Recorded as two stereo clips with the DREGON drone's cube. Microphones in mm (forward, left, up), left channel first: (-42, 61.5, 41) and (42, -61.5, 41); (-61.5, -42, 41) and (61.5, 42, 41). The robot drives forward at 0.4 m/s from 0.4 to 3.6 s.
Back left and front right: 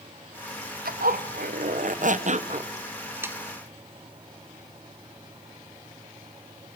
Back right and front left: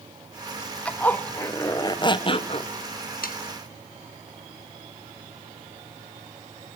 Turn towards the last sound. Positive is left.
turn(degrees=-135)